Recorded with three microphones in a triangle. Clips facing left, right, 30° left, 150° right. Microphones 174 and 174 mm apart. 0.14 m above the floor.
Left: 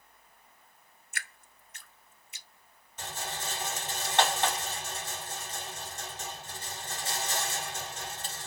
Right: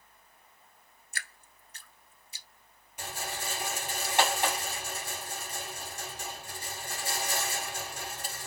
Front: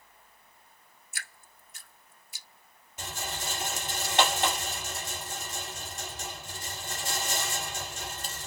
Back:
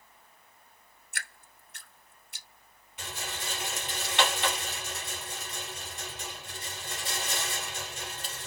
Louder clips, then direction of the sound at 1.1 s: Left 1 dB, back 4 dB; 145° right.